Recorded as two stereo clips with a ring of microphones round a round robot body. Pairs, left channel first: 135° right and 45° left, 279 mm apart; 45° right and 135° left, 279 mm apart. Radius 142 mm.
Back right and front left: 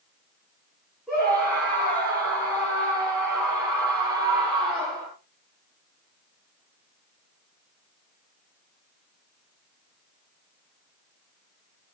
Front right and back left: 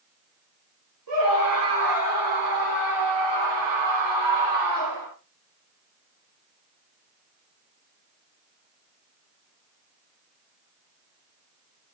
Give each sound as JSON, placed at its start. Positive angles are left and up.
{"t": 1.1, "sound": "a scream", "azimuth_deg": 135, "distance_m": 8.0}